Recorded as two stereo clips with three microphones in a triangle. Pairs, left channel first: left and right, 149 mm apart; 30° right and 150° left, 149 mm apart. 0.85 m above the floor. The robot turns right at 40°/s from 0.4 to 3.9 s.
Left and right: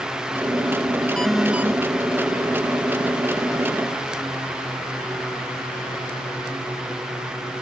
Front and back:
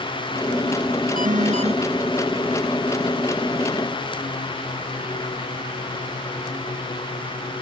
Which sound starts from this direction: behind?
An alarm, at 1.2 s.